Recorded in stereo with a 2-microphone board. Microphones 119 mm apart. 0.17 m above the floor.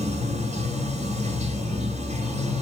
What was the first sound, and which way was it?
Running water, 65° right (ahead or behind).